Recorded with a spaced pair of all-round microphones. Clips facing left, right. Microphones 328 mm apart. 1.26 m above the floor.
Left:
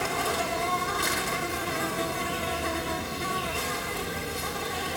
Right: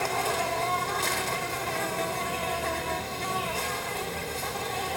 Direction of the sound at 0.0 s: 20° left (ahead or behind).